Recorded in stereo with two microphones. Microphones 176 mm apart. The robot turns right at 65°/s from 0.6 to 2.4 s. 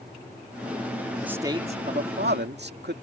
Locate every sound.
1.2 s a man speaking: 175° right; by 2.9 s 95° right